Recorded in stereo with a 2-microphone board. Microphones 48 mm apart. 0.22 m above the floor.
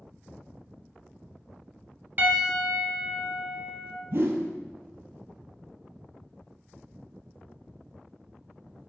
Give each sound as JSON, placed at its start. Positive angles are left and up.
{"t": 2.2, "sound": "a piano", "side_deg": -40, "distance_m": 1.2}
{"t": 4.1, "sound": "a whoosh", "side_deg": -55, "distance_m": 0.9}